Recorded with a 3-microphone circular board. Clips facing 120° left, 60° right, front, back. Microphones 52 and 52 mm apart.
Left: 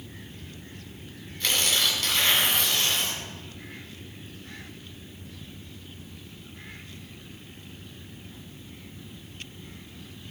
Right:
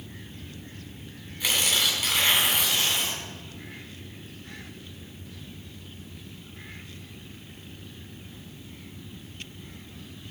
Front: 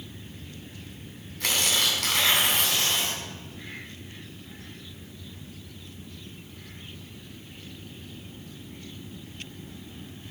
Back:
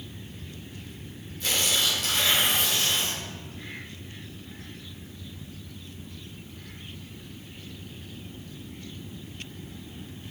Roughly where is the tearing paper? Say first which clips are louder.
Even, front 1 dB; ahead.